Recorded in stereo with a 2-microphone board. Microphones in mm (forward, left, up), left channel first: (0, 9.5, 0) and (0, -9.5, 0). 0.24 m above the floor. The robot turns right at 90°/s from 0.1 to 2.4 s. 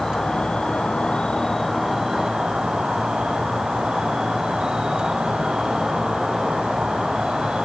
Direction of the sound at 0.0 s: 20° left.